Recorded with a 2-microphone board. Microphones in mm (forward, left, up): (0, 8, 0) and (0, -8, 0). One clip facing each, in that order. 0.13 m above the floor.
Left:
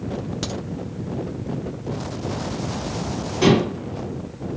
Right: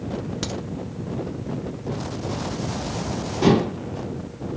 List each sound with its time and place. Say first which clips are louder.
0.4 s a crack: even; centre (ahead or behind), 1.3 m
3.4 s dishes clattering: left 1 dB; 45° left (ahead or behind), 2 m